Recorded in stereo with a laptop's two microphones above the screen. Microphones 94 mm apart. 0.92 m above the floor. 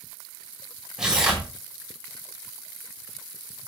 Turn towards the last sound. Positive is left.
turn(degrees=-10)  # may be behind; listen again after turning